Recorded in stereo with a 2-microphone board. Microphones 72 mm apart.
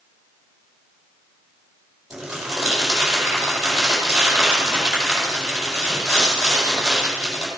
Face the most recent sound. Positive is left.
turn(degrees=-5)  # may be behind; listen again after turning